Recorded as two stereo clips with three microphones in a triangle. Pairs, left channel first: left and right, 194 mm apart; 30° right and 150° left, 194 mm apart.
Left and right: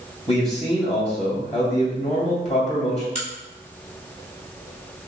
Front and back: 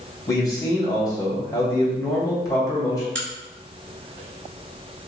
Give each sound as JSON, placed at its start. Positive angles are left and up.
{"t": 0.3, "sound": "a man speaking", "azimuth_deg": 40, "distance_m": 2.0}
{"t": 3.1, "sound": "a crack", "azimuth_deg": 140, "distance_m": 1.0}